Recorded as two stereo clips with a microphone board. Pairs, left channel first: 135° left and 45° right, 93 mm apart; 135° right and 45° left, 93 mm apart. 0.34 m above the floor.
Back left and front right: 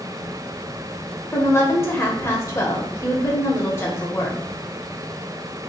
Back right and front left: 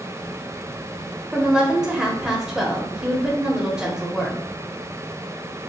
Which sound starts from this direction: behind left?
A woman speaking, at 1.3 s.